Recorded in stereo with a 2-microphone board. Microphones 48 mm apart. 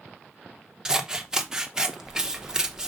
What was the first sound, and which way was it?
Scissors, 15° right (ahead or behind).